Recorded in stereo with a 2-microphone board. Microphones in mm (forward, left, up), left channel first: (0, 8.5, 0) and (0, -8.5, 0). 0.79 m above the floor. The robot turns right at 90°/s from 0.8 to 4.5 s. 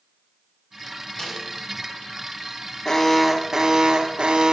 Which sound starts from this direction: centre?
A snare drum, at 1.2 s.